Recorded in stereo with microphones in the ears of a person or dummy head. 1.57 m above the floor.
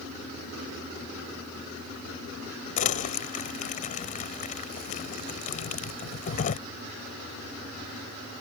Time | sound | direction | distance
2.8 | crumpling | 45° left (ahead or behind) | ?